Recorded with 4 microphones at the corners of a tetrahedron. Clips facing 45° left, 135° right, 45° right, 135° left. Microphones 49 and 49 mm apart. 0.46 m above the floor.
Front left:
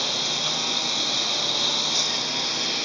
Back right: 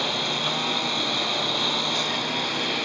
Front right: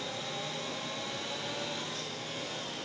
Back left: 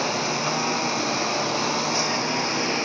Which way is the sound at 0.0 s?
150° left.